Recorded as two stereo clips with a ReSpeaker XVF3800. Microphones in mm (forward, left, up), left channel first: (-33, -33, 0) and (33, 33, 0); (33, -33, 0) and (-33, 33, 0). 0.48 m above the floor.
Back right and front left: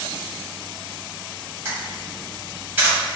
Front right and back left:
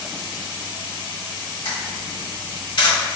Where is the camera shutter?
25° right, 1.4 m.